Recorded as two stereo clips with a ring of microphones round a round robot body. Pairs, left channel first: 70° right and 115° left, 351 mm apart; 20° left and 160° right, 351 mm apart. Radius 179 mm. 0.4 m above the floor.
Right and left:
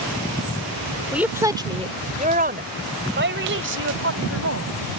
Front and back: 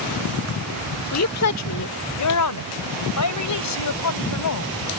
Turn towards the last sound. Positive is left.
turn(degrees=65)